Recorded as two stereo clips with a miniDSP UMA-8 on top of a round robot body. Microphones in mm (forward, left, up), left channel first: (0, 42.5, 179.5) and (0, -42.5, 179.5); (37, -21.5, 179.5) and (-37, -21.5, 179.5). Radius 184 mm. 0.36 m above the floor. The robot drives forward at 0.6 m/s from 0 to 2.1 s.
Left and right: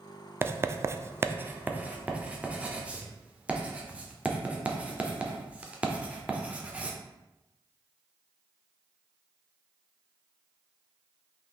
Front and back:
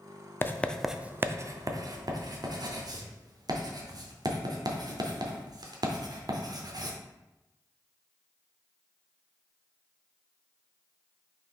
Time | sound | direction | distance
0.4 | writing | 40° right | 0.6 m